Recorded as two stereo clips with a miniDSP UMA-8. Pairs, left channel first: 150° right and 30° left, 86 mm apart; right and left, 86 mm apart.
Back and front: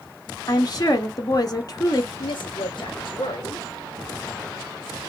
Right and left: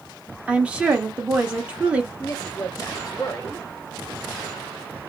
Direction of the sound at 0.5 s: 165° left.